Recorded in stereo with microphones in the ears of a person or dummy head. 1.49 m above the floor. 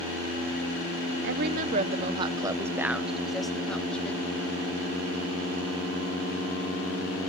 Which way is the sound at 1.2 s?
55° right (ahead or behind).